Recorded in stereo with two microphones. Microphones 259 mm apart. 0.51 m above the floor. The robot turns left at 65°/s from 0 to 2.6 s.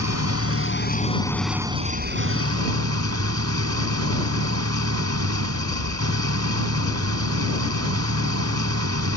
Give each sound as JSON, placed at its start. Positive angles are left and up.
{"t": 0.0, "sound": "an engine running", "azimuth_deg": 95}